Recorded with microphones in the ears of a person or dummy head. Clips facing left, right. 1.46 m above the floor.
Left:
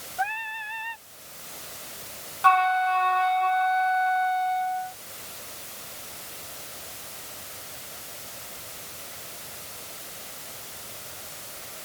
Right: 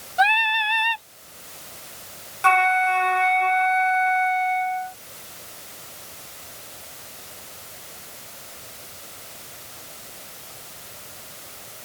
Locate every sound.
0.2 s singing: 75° right (ahead or behind)
2.4 s a flute: 40° right (ahead or behind)